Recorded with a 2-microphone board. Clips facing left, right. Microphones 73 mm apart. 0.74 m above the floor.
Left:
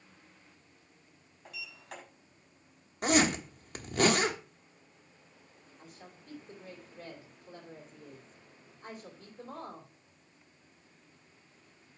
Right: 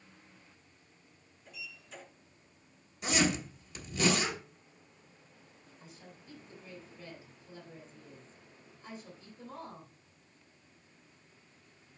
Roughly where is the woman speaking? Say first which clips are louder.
Left 2 dB; left.